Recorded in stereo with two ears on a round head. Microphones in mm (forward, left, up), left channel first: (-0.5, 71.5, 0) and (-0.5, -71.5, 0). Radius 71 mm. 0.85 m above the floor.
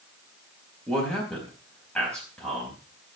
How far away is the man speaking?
About 4.5 m.